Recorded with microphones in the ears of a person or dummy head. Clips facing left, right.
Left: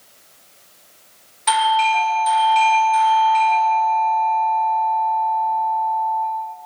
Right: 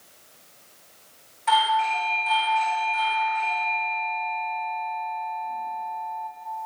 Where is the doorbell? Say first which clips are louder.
Left 5 dB; 70° left (ahead or behind), 2.5 m.